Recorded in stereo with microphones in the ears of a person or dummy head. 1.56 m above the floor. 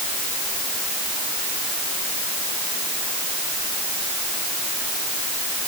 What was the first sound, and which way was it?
Only background noise.